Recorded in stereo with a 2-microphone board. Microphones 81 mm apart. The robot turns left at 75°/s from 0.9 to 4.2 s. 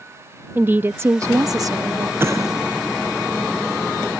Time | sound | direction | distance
0.6 | a woman speaking | 35° right | ?
2.2 | an explosion | 30° right (ahead or behind) | ?